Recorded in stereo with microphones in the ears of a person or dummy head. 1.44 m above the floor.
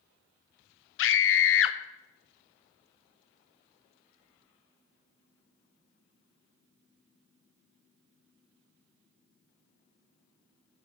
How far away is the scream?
About 1.0 m.